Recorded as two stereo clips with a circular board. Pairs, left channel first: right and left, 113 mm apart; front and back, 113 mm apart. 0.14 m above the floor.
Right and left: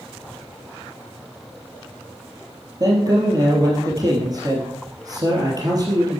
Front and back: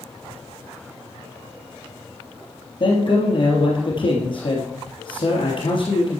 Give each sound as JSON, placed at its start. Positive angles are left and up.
{"t": 2.8, "sound": "a man speaking", "azimuth_deg": 35, "distance_m": 3.0}